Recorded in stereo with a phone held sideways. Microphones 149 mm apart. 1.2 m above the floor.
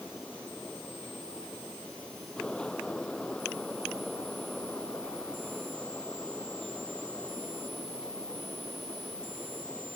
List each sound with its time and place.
0.0 s a fan: 5° left (ahead or behind)